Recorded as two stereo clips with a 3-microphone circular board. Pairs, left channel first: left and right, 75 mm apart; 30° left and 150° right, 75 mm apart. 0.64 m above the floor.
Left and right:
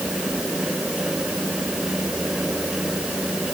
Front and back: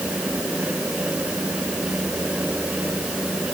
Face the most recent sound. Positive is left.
No sound to turn to.